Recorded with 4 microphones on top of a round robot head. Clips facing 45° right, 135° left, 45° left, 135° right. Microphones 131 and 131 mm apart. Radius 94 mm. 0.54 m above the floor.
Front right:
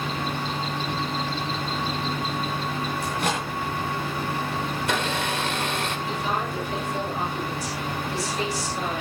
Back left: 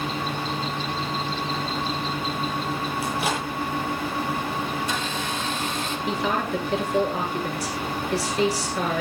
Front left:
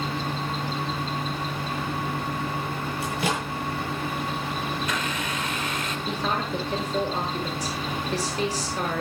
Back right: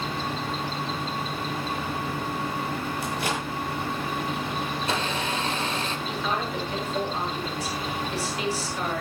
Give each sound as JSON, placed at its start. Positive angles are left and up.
{"t": 3.0, "sound": "a microwave", "azimuth_deg": 50, "distance_m": 9.5}
{"t": 4.8, "sound": "a blender", "azimuth_deg": -75, "distance_m": 2.5}
{"t": 6.1, "sound": "a woman speaking", "azimuth_deg": 100, "distance_m": 9.0}